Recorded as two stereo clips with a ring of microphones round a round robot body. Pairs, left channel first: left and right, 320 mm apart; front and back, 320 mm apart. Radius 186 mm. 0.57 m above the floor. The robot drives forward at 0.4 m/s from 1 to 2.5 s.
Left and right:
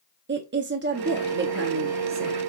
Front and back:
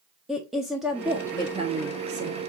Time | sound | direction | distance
0.3 | a woman speaking | 90° right | 0.8 m